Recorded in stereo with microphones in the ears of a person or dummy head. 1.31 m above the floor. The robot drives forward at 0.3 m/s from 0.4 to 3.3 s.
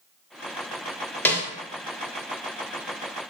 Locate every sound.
1.2 s a snare drum: 10° left (ahead or behind), 0.6 m